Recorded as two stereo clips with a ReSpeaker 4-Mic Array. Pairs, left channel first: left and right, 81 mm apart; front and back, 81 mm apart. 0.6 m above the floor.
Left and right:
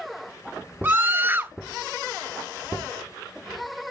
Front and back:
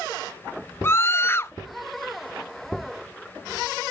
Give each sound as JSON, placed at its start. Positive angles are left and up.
{"t": 0.8, "sound": "a scream", "azimuth_deg": -40, "distance_m": 0.9}